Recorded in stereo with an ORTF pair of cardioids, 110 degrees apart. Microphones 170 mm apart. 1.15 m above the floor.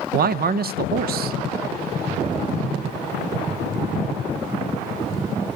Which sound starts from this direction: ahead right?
A man speaking, at 0.1 s.